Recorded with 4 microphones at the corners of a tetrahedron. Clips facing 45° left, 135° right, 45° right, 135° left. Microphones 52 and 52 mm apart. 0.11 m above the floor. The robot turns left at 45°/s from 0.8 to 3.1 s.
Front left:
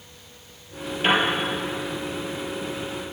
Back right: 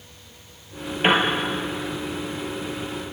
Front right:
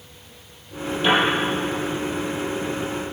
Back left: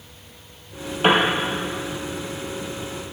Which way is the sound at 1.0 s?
170° left.